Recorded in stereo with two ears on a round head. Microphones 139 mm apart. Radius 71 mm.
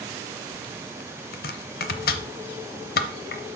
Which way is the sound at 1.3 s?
65° left (ahead or behind).